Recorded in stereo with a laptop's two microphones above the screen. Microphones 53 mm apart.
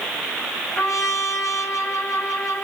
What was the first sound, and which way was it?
A trumpet, 60° left (ahead or behind).